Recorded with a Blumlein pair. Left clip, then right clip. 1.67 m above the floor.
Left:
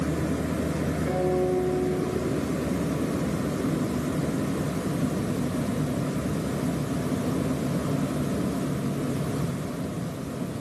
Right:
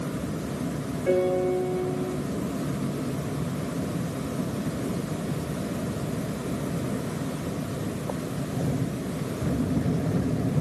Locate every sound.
1.1 s a piano: 30° right, 1.7 m